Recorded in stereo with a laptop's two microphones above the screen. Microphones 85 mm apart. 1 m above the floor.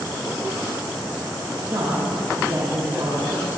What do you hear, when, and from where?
1.7 s a man speaking: 55° right (ahead or behind), 1.3 m